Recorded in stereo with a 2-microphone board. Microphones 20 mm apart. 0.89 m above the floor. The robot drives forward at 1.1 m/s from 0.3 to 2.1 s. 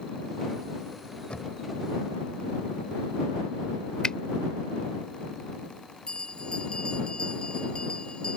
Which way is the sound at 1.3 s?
70° left (ahead or behind).